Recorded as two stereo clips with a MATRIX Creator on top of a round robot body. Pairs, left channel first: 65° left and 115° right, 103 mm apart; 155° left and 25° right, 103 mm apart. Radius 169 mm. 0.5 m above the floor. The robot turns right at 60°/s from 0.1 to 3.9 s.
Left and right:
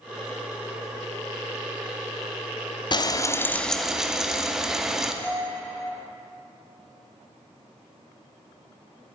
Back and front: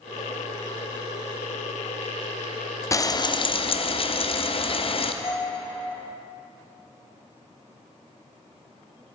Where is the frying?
100° left, 0.9 m; by 5.1 s 160° left, 0.9 m.